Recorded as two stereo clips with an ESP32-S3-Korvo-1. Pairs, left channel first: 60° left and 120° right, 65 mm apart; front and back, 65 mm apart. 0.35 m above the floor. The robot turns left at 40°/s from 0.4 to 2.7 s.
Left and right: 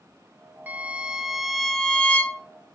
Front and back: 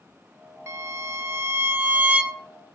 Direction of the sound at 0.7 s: 170° right.